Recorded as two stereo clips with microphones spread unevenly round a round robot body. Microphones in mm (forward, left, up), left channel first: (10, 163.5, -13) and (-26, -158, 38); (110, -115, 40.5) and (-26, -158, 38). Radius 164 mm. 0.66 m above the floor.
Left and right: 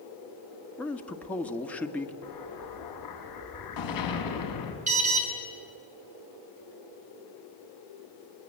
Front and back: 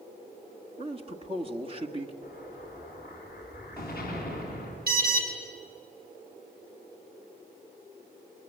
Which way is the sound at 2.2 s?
115° left.